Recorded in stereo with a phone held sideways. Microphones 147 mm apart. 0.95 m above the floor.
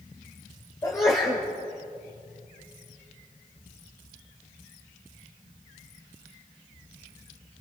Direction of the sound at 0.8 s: 25° left (ahead or behind).